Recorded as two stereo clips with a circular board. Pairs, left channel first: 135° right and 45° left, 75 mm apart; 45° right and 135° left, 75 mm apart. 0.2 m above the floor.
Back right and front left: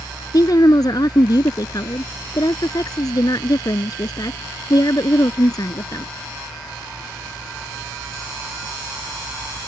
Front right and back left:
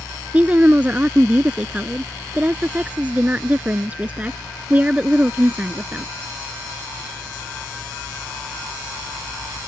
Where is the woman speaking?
155° right.